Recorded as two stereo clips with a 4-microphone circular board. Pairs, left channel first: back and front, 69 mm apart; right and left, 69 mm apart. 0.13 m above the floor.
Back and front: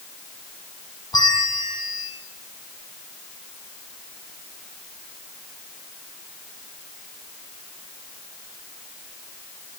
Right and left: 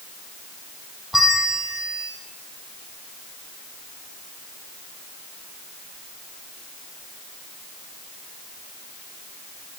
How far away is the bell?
About 4.5 m.